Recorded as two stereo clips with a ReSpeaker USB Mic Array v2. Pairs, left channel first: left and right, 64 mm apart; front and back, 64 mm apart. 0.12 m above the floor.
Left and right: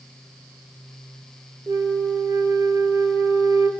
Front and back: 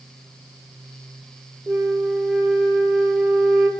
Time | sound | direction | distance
1.7 | a flute | 115° right | 2.5 m